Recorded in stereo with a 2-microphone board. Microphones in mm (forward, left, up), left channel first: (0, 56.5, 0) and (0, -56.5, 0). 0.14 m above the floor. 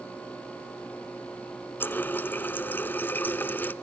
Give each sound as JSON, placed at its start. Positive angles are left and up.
{"t": 1.8, "sound": "a running tap", "side_deg": 15, "distance_m": 0.8}